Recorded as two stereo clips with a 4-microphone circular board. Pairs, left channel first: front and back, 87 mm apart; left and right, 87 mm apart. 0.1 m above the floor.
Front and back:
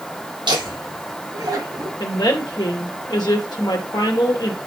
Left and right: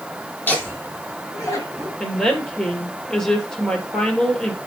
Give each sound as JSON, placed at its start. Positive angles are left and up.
{"t": 0.5, "sound": "laughter", "azimuth_deg": 160, "distance_m": 3.5}
{"t": 2.0, "sound": "a woman speaking", "azimuth_deg": 10, "distance_m": 2.0}